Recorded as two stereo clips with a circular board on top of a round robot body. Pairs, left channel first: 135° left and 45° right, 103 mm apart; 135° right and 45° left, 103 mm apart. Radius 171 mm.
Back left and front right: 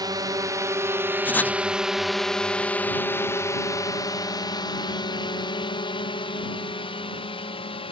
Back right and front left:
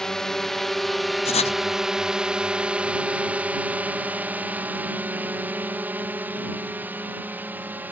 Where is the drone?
55° right; by 7.9 s 115° left.